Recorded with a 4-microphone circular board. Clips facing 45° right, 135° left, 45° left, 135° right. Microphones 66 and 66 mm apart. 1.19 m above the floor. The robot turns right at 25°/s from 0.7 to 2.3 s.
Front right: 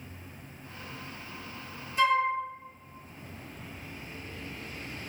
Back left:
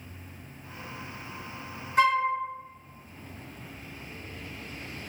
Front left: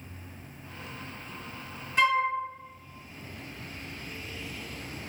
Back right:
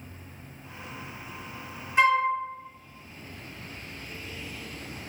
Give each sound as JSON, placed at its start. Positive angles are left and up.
{"t": 2.0, "sound": "a flute", "azimuth_deg": 150, "distance_m": 1.3}